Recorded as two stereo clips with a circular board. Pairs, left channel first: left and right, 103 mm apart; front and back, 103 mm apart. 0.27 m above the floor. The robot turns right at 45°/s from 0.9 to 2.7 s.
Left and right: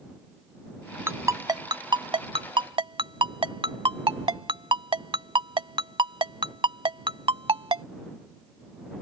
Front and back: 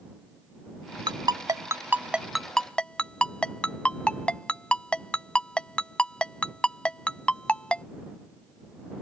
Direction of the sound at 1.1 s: 150° right.